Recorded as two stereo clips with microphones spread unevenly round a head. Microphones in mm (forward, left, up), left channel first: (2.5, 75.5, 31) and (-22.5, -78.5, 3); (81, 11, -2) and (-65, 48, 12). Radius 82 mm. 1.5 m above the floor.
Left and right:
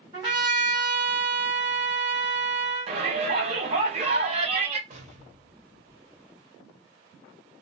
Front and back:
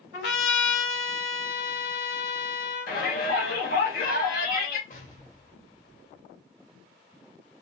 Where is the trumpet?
30° right, 1.8 m.